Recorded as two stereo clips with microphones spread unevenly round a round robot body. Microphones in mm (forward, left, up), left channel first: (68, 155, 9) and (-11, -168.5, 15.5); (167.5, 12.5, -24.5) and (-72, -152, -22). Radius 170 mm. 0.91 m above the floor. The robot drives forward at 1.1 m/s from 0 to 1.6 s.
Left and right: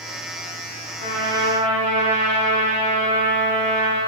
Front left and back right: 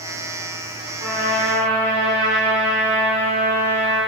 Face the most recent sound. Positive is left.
turn(degrees=145)